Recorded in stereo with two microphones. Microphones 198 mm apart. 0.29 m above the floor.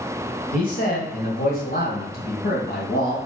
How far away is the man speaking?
About 1.7 m.